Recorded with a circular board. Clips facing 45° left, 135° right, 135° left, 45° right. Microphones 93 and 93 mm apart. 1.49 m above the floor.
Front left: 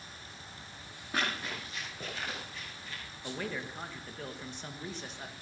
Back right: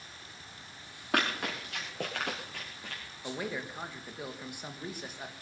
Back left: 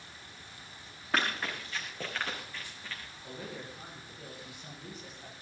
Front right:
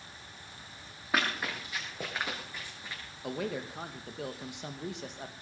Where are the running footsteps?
130° right, 6 m; by 3.0 s 115° right, 4.5 m.